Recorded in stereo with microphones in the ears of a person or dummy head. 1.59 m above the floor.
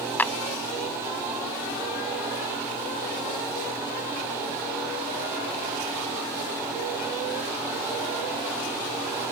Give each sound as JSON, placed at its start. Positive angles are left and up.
{"t": 0.2, "sound": "a clap", "side_deg": 10}